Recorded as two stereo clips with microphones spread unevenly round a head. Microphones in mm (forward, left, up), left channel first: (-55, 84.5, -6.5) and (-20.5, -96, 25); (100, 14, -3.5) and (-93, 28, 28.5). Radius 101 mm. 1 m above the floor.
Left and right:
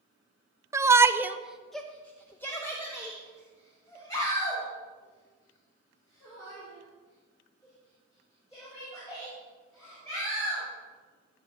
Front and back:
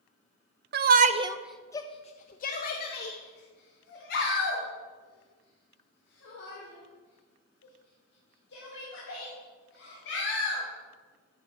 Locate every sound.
0.7 s a shout: 160° right, 0.6 m; by 10.6 s 25° left, 6.5 m